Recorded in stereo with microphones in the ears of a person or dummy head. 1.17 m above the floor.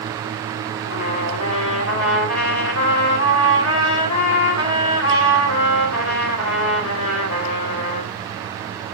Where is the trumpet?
90° left, 4.5 m.